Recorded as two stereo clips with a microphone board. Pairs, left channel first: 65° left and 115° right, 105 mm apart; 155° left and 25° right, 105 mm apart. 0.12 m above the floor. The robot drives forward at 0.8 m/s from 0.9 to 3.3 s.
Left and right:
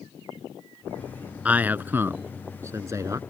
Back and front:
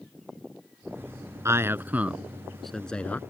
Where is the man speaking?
50° right; by 3.2 s 140° right.